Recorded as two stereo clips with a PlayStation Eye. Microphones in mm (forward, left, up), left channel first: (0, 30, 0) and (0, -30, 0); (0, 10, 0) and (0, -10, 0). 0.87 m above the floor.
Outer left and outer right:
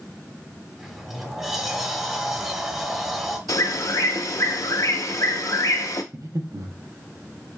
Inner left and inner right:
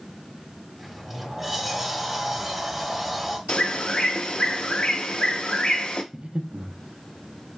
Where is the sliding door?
5° right (ahead or behind), 0.9 m.